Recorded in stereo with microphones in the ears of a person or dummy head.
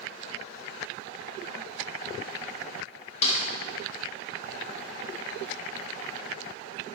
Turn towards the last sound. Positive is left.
turn(degrees=40)  # may be behind; listen again after turning